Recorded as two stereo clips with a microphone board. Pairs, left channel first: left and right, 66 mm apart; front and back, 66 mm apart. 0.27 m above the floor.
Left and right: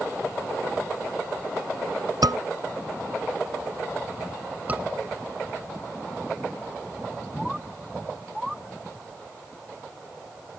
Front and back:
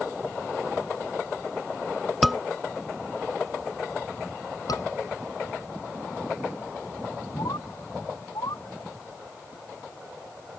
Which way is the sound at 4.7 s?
25° right.